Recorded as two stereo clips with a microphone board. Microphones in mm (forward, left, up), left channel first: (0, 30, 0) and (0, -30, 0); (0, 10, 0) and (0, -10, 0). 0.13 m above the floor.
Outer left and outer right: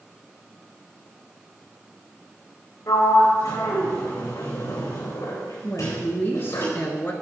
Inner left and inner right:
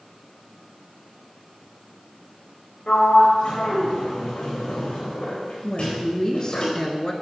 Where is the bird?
I don't hear a bird.